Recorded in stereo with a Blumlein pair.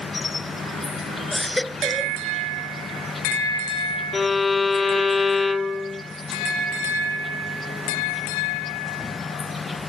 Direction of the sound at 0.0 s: 15° left.